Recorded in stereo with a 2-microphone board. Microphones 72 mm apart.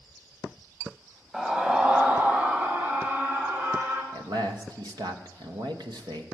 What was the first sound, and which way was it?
A scream, 5° right (ahead or behind).